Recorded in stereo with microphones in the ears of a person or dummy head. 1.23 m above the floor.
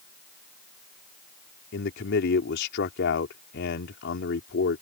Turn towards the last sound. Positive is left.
turn(degrees=60)  # may be behind; listen again after turning